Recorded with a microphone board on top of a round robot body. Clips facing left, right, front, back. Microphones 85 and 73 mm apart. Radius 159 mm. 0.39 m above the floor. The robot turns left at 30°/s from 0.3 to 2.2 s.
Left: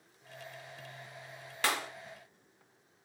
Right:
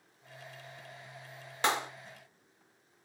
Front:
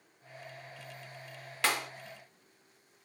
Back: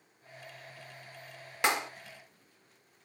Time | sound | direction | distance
1.6 | a clap | 130° right | 0.7 m